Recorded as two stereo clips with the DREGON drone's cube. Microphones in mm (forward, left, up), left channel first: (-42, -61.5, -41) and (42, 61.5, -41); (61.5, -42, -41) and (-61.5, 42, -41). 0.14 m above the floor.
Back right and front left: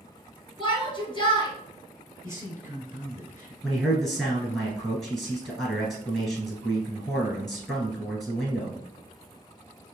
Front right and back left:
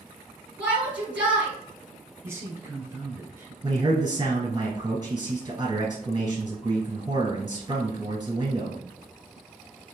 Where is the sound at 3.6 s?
145° left, 1.4 m.